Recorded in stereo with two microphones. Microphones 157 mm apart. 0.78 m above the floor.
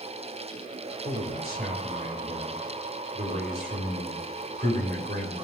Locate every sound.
1.1 s a man speaking: 75° right (ahead or behind), 3.5 m